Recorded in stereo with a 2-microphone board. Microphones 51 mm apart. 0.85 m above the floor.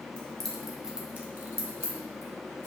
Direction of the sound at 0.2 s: 20° left (ahead or behind).